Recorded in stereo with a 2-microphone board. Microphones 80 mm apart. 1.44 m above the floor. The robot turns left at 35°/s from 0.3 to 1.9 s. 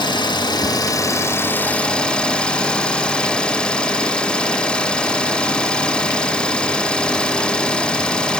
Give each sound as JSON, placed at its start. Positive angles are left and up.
{"t": 0.0, "sound": "an engine running", "azimuth_deg": 70, "distance_m": 1.8}